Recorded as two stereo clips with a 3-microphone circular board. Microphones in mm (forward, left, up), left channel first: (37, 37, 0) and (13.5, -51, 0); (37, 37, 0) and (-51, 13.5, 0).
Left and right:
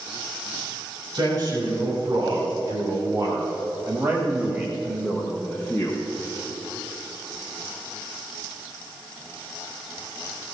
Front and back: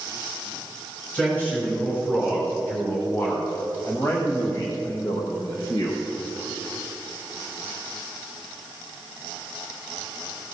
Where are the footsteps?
I don't hear footsteps.